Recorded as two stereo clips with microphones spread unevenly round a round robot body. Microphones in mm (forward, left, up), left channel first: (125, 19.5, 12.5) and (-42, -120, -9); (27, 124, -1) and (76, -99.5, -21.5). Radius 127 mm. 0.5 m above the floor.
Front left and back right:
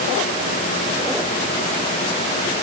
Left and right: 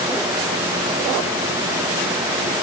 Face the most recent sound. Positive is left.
No sound to turn to.